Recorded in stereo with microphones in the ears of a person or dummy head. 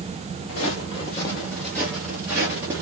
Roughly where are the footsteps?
Left.